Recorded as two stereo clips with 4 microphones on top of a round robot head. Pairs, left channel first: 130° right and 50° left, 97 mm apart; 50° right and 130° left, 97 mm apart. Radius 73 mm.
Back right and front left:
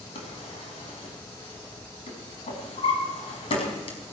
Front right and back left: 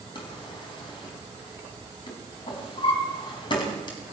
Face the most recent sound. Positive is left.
turn(degrees=-95)